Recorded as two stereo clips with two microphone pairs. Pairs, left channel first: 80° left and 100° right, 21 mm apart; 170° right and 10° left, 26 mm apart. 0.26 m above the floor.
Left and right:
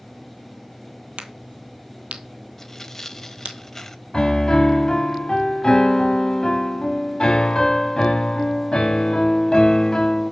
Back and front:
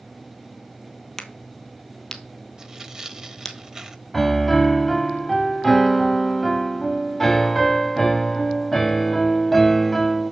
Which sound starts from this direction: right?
A crack, at 1.2 s.